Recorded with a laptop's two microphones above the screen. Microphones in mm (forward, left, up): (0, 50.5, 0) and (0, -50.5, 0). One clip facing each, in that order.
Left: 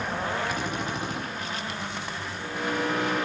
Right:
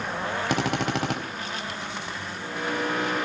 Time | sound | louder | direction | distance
0.5 | a drill | right 5 dB | 85° right | 4 m